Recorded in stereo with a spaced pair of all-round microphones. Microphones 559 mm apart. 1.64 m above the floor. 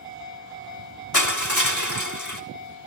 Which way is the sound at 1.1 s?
30° left (ahead or behind).